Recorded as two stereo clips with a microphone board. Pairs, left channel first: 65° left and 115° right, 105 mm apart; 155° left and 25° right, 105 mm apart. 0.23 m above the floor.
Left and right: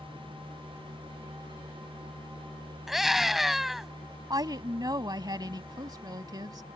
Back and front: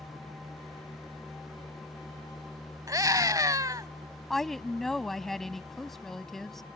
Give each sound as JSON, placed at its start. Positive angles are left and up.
{"t": 2.9, "sound": "a scream", "azimuth_deg": -25}
{"t": 4.3, "sound": "a woman speaking", "azimuth_deg": -115}